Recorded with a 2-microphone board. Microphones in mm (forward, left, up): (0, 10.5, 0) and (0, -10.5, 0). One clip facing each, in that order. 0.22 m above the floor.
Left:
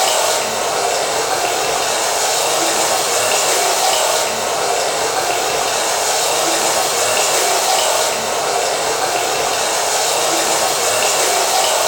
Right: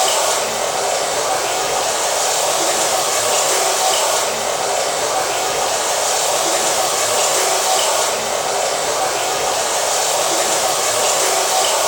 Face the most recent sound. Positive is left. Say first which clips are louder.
# left 1 dB
turn(degrees=60)  # may be behind; listen again after turning